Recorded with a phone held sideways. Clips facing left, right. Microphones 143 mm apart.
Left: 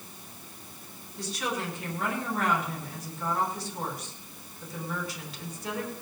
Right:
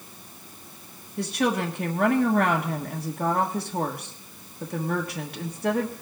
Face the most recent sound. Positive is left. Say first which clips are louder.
# right 8 dB
turn(degrees=-60)  # may be behind; listen again after turning